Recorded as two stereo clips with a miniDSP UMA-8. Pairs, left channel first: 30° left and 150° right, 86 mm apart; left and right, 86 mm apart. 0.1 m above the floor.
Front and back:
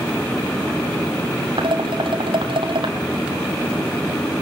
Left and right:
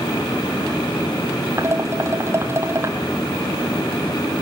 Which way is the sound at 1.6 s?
150° right.